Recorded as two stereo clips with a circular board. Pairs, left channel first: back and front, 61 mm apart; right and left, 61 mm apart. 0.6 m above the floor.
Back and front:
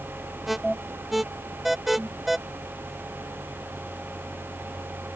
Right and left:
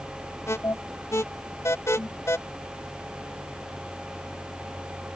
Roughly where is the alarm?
Right.